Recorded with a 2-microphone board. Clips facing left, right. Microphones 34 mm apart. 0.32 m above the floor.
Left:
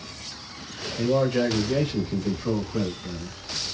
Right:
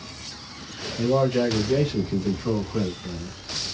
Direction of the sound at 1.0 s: 10° left (ahead or behind).